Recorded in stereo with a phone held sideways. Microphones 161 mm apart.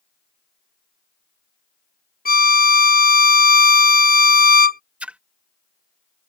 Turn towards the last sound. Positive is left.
turn(degrees=-10)  # may be behind; listen again after turning